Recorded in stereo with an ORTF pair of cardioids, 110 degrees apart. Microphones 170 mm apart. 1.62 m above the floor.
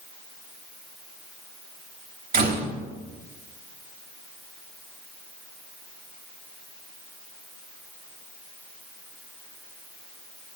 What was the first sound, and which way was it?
A door slam, 60° right.